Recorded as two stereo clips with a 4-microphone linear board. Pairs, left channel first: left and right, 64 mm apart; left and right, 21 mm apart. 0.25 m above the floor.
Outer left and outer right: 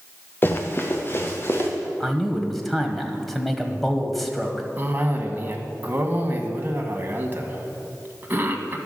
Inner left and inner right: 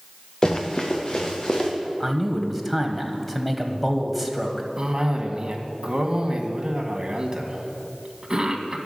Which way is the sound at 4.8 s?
30° right (ahead or behind).